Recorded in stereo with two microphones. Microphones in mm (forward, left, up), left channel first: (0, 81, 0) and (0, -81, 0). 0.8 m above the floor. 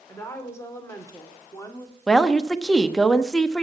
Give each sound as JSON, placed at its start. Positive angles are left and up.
{"t": 0.1, "sound": "a woman speaking", "side_deg": 15, "distance_m": 3.0}
{"t": 2.1, "sound": "a woman speaking", "side_deg": 5, "distance_m": 0.9}